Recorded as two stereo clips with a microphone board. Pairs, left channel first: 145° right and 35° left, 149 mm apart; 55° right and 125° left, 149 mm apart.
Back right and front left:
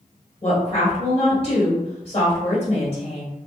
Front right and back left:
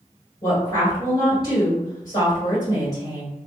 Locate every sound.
0.4 s a woman speaking: 115° right, 1.8 m